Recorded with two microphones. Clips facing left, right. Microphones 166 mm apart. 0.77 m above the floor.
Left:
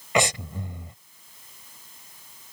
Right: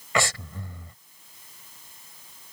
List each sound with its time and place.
0.1 s breathing: 20° left (ahead or behind)